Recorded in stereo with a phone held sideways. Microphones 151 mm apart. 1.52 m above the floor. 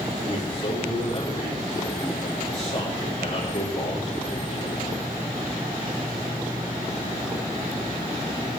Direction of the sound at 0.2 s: 40° left (ahead or behind).